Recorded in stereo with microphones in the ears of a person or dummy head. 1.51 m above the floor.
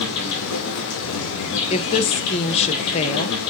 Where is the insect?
65° left (ahead or behind), 2 m.